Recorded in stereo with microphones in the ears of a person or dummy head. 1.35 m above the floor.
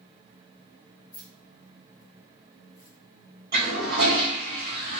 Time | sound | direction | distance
1.1 | keys jangling | 20° left (ahead or behind) | 1.4 m
3.5 | a toilet flushing | 45° right (ahead or behind) | 1.7 m